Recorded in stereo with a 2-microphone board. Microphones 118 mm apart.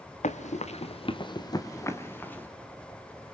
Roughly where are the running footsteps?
Left.